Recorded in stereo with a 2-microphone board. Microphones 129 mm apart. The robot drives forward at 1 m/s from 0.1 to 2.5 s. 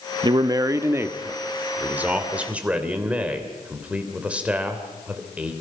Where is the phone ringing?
No phone ringing in this recording.